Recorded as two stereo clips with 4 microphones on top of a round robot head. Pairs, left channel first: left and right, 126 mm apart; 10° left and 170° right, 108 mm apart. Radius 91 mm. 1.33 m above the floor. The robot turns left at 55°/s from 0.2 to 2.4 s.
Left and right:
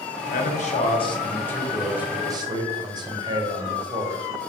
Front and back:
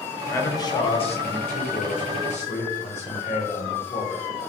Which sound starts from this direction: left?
A man speaking, at 0.3 s.